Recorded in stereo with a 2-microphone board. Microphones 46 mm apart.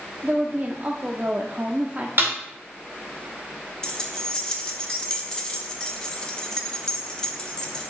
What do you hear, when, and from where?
0.2 s a woman speaking: 35° right (ahead or behind), 0.7 m
2.2 s a snare drum: 50° right (ahead or behind), 2.5 m
3.8 s keys jangling: 15° left (ahead or behind), 1.1 m